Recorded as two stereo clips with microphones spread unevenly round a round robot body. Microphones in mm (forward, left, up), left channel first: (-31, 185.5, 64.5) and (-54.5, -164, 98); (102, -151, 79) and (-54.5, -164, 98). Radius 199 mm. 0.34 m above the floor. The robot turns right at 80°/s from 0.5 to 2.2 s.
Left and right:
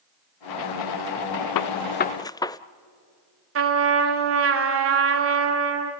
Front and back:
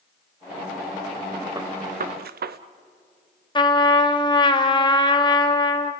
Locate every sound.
1.6 s a gunshot: 110° left, 0.5 m; by 2.6 s 165° left, 0.5 m
3.5 s a trumpet: 45° right, 1.9 m